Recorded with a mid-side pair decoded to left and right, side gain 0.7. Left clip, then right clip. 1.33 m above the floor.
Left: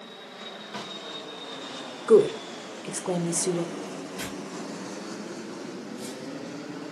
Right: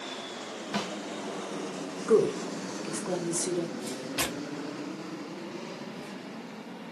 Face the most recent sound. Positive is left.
turn(degrees=-70)